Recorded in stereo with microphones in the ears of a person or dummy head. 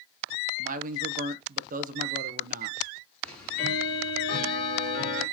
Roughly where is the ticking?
Centre.